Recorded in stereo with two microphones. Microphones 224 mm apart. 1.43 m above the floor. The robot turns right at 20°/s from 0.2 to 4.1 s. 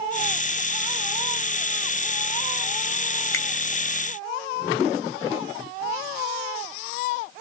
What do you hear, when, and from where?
3.3 s a finger snap: 65° left (ahead or behind), 1.8 m